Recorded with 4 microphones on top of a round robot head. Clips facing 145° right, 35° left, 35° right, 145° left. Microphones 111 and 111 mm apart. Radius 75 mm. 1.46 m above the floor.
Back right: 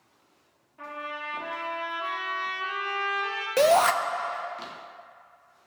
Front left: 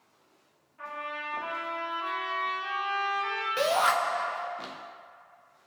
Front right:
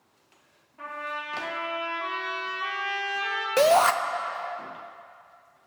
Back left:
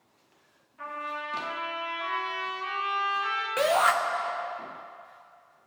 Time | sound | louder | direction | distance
0.8 | a trumpet | back right 1 dB, even | 90° right | 3 m
3.6 | a shout | back right 6 dB, front right 5 dB | 95° right | 0.6 m